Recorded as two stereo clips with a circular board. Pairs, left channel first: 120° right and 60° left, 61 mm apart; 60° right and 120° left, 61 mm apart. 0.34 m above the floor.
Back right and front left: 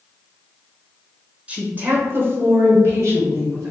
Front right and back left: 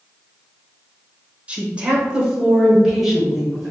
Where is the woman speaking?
90° left, 1.0 m; by 3.7 s 30° left, 1.8 m.